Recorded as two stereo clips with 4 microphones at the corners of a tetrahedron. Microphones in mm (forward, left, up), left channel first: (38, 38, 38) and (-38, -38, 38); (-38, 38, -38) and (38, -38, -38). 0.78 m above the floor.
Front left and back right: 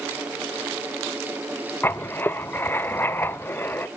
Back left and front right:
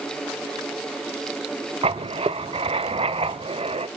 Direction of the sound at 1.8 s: 25° right.